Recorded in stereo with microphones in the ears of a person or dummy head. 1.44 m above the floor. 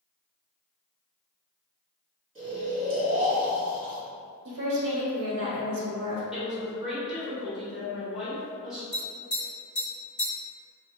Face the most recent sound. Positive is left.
turn(degrees=25)  # may be behind; listen again after turning